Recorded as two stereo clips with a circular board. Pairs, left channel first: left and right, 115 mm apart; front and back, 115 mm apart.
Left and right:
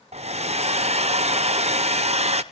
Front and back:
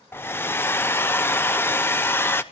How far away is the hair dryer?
About 0.7 m.